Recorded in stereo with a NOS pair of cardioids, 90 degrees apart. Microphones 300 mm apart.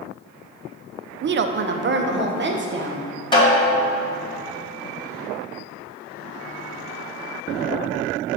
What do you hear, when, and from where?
1.2 s a woman speaking: 40° right, 0.5 m; by 3.1 s 35° right, 1.6 m
3.3 s a snare drum: 15° left, 2.5 m